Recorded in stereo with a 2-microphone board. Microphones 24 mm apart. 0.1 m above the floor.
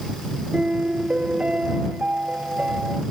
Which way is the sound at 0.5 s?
50° right (ahead or behind).